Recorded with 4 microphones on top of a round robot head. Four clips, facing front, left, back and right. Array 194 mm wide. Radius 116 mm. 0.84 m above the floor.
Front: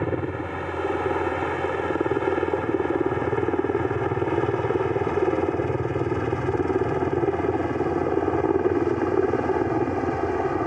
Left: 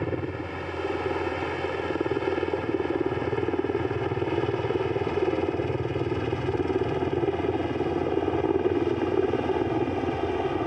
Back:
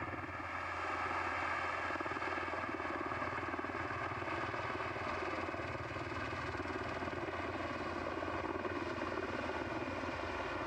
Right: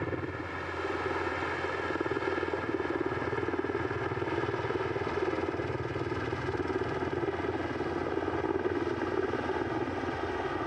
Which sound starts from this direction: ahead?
A helicopter, at 0.0 s.